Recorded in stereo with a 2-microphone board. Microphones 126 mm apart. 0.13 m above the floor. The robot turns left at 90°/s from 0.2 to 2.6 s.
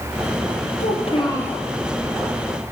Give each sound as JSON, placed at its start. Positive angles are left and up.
{"t": 0.8, "sound": "a child speaking", "azimuth_deg": 75, "distance_m": 3.0}